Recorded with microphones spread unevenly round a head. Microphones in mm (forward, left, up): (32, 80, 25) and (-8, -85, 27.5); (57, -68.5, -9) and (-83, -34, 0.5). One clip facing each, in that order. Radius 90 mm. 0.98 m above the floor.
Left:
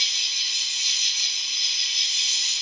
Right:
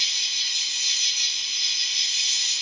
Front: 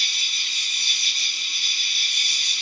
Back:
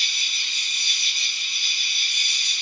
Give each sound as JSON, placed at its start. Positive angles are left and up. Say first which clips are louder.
{"t": 0.0, "sound": "an insect", "louder": "even, even", "azimuth_deg": 95, "distance_m": 1.6}